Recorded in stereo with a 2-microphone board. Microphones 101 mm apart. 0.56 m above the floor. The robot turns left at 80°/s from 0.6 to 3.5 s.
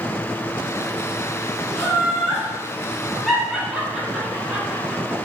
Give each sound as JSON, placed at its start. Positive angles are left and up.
{"t": 1.8, "sound": "laughter", "side_deg": 25, "distance_m": 1.1}